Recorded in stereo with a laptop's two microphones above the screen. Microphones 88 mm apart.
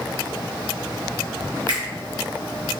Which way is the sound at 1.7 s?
65° right (ahead or behind).